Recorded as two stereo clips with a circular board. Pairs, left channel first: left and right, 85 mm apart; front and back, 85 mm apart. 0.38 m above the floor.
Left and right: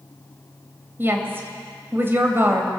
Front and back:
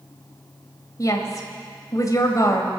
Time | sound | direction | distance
1.0 | a woman speaking | 35° right | 2 m